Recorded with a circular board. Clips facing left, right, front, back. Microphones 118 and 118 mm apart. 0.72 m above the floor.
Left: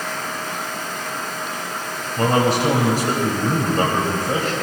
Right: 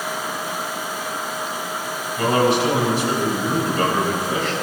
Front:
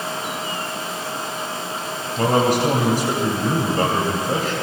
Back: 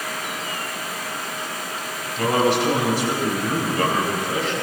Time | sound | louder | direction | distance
2.2 | a man speaking | even, front 2 dB | 40° left | 3 m